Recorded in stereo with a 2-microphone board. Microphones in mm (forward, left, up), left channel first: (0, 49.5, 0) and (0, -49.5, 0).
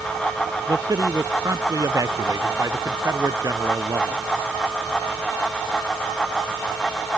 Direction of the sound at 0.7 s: 35° right (ahead or behind).